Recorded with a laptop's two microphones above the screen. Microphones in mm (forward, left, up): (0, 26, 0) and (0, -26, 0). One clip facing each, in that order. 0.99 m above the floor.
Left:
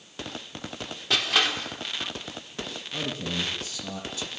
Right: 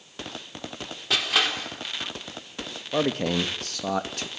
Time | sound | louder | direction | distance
1.1 | crushing | even | centre (ahead or behind) | 3.5 m
2.9 | a man speaking | right 8 dB | 60° right (ahead or behind) | 1.4 m